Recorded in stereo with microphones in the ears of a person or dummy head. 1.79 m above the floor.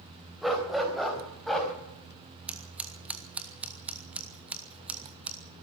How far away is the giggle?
No giggle in this recording.